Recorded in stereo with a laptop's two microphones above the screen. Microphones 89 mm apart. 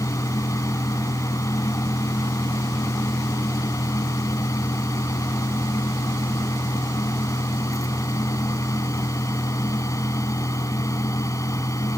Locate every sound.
0.0 s a fan: 35° left (ahead or behind)